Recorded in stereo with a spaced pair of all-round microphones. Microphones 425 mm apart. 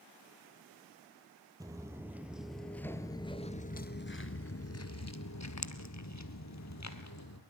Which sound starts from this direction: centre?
Footsteps, at 1.6 s.